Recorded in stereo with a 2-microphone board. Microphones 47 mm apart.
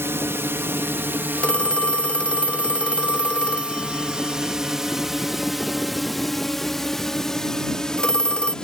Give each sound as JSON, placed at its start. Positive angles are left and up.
{"t": 0.0, "sound": "a drone", "side_deg": -65}
{"t": 1.4, "sound": "a phone ringing", "side_deg": 20}